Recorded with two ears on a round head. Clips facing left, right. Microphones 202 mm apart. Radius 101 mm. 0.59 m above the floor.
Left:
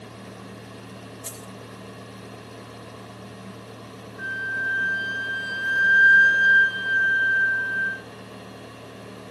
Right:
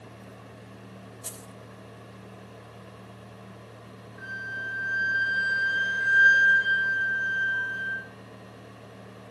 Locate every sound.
1.2 s keys jangling: 5° right (ahead or behind), 1.0 m
4.2 s a flute: 45° right (ahead or behind), 9.5 m